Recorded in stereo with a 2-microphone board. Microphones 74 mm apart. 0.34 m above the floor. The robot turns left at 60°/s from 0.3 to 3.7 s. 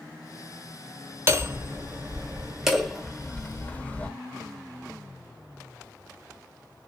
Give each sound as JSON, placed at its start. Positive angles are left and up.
{"t": 1.3, "sound": "hammering", "side_deg": -30, "distance_m": 1.0}